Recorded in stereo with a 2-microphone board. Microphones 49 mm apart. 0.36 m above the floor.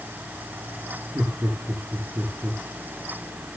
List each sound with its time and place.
1.1 s laughter: 75° right (ahead or behind), 8 m